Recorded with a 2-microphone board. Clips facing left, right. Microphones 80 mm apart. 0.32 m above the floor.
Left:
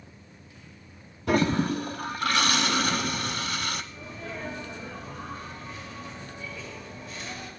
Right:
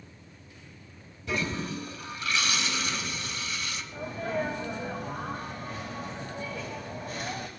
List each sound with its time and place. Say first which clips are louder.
1.3 s a toilet flushing: left 8 dB; 60° left (ahead or behind), 1.1 m
3.9 s a sneeze: right 7 dB; 55° right (ahead or behind), 2 m